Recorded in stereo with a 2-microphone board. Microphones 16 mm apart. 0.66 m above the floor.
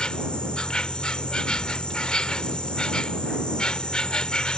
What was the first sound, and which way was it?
An insect, 75° left (ahead or behind).